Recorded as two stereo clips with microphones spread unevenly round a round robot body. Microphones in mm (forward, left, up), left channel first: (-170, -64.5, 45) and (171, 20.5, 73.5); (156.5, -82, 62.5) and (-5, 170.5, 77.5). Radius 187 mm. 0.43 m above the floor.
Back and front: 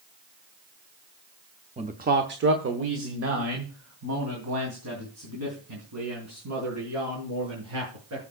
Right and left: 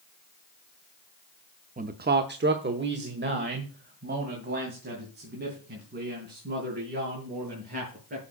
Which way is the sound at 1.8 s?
80° left.